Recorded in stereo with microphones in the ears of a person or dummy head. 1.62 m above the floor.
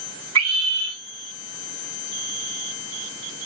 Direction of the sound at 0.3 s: 80° right.